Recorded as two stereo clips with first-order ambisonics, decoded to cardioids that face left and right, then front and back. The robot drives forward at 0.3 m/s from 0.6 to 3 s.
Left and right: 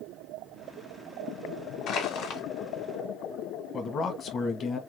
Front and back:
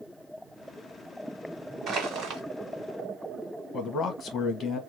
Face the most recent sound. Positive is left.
turn(degrees=50)